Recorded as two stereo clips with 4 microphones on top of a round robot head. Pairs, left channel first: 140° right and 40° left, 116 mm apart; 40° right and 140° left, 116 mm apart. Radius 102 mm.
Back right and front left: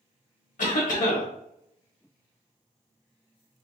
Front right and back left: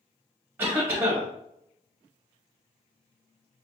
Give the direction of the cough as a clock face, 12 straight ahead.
5 o'clock.